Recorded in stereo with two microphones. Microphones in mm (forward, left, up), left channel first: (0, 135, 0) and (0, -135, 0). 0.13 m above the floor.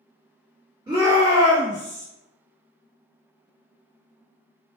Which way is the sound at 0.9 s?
15° right (ahead or behind).